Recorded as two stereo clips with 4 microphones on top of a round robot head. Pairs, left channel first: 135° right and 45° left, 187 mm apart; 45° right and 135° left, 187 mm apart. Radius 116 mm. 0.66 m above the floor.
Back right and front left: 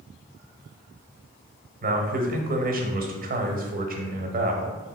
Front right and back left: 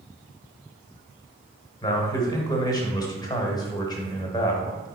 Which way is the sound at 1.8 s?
20° left.